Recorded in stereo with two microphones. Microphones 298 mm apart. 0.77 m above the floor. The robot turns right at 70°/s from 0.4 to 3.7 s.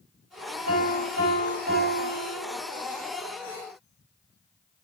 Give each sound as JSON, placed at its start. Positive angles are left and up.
{"t": 0.7, "sound": "a piano", "azimuth_deg": -120, "distance_m": 4.0}